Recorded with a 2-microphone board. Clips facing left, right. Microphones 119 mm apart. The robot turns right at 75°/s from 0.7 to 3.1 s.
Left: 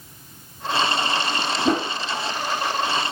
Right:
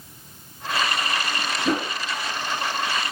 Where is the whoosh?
35° left (ahead or behind), 0.9 m; by 1.9 s 20° left (ahead or behind), 0.9 m.